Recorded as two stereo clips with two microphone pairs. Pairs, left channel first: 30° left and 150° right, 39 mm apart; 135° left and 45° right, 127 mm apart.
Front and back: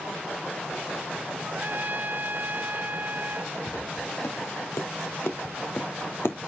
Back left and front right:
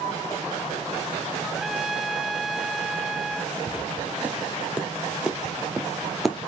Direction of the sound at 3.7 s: 35° left.